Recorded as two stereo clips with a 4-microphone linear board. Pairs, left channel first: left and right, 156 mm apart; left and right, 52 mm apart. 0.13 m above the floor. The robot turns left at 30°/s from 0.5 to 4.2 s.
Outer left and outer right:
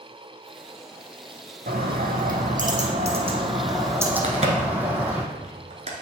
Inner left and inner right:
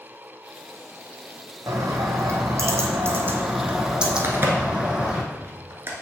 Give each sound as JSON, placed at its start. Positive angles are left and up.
{"t": 1.7, "sound": "a bird", "azimuth_deg": -90, "distance_m": 1.2}
{"t": 4.2, "sound": "a crack", "side_deg": -45, "distance_m": 1.2}